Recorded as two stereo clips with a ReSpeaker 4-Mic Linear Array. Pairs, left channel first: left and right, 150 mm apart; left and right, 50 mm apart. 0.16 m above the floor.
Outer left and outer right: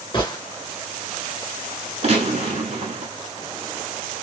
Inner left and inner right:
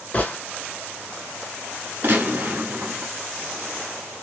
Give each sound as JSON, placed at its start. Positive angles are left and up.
{"t": 0.1, "sound": "a gunshot", "side_deg": 30, "distance_m": 0.9}
{"t": 2.0, "sound": "a gunshot", "side_deg": -45, "distance_m": 1.1}